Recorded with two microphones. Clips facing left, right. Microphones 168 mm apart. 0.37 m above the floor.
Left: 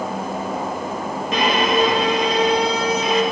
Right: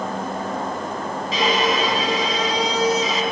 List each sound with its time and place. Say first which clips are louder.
1.3 s a violin: left 2 dB; 60° left (ahead or behind), 3 m